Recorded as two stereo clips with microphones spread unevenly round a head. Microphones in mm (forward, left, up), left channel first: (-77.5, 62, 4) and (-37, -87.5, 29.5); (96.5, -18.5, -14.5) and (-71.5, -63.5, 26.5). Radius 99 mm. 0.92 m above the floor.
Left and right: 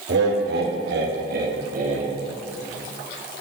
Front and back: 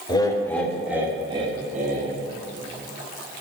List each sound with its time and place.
0.1 s laughter: 45° right, 1.5 m; by 2.1 s 120° right, 1.7 m